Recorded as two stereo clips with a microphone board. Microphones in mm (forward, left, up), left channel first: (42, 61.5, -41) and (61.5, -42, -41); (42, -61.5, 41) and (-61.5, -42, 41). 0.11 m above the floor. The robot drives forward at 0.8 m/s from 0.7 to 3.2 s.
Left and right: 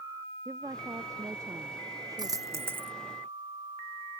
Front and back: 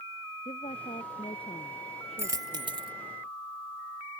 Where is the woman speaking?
20° right.